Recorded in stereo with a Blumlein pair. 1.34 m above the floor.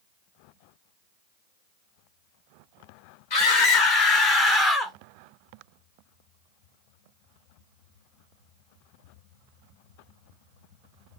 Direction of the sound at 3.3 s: 50° left.